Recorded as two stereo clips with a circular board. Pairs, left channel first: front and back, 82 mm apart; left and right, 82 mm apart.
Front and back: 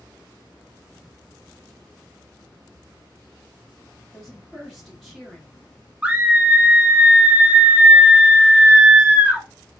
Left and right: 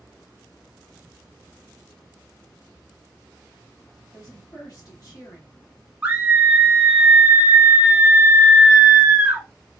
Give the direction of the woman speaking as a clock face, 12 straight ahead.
9 o'clock.